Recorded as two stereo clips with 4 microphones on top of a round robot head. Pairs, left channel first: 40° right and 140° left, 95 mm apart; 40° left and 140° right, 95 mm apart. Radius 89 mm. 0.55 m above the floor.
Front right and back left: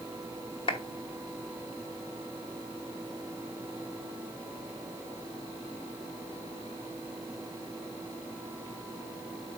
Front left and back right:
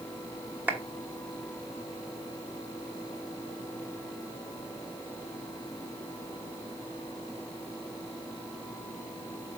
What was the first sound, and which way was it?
A clap, 70° right.